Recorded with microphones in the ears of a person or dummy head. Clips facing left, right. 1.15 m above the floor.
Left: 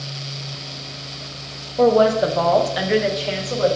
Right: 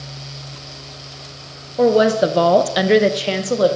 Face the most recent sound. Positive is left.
turn(degrees=-45)  # may be behind; listen again after turning